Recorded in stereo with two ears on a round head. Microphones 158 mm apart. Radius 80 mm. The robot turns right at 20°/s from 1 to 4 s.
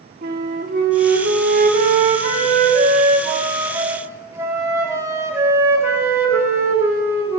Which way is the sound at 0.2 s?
80° right.